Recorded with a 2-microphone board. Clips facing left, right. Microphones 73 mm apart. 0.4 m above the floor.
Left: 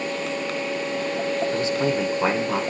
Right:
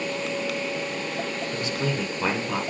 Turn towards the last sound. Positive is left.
turn(degrees=15)  # may be behind; listen again after turning